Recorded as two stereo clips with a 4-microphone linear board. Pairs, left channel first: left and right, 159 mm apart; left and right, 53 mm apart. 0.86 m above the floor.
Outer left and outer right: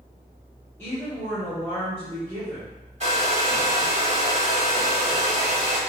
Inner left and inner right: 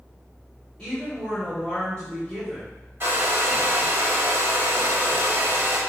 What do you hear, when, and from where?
0.8 s a woman speaking: 15° left (ahead or behind), 1.9 m
3.0 s a hair dryer: 45° right (ahead or behind), 1.2 m